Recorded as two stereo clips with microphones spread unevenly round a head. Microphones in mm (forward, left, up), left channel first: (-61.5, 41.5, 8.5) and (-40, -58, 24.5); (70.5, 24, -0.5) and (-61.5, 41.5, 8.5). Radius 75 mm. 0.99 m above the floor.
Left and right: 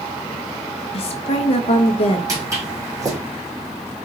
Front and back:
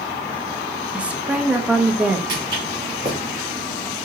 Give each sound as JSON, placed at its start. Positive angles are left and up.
{"t": 0.9, "sound": "a woman speaking", "azimuth_deg": 90, "distance_m": 0.7}
{"t": 2.3, "sound": "footsteps", "azimuth_deg": -130, "distance_m": 2.5}